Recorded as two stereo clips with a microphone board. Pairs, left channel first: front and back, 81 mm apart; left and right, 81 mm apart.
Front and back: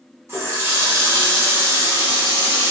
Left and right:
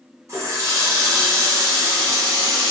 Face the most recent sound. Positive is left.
turn(degrees=-130)